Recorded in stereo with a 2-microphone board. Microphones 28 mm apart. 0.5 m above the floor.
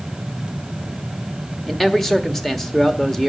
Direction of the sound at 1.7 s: 10° left (ahead or behind).